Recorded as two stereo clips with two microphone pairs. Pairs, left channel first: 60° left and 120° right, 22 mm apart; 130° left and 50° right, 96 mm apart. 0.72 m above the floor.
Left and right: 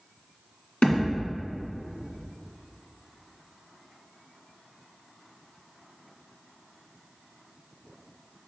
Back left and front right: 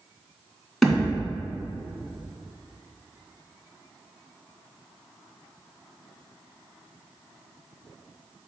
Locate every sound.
0.8 s a thud: 40° left, 2 m